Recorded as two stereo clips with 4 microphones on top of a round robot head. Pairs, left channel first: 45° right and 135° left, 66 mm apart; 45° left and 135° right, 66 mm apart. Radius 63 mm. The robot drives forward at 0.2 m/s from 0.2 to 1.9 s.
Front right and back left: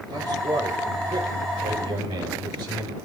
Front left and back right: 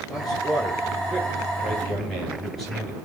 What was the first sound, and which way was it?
A man speaking, 135° left.